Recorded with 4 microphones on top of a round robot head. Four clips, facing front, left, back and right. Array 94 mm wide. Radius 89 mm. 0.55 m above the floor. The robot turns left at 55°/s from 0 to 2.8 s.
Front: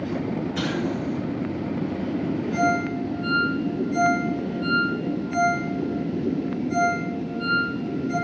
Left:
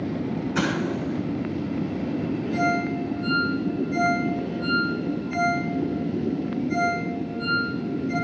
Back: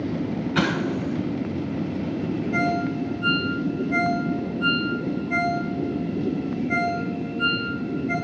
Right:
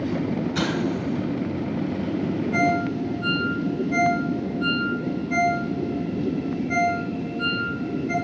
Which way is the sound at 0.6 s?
160° left.